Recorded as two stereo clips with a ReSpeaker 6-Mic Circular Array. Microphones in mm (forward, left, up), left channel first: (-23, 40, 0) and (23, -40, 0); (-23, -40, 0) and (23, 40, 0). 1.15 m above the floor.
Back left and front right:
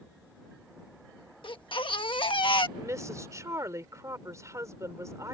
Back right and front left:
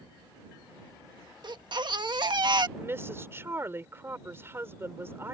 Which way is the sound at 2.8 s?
5° right.